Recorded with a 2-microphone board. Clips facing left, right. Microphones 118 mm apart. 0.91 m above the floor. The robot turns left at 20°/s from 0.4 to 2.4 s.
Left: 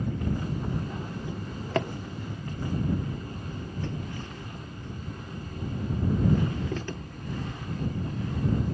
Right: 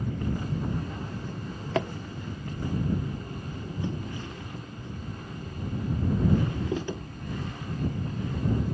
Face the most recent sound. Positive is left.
turn(degrees=-15)  # may be behind; listen again after turning